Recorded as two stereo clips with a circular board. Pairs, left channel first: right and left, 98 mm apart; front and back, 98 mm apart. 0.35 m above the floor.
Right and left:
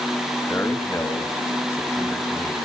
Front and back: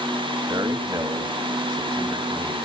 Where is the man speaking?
145° right, 2.5 m.